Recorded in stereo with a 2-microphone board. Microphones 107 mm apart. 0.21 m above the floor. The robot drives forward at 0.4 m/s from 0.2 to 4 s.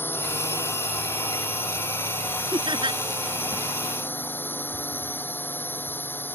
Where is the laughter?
45° right (ahead or behind); by 3.0 s 50° right (ahead or behind).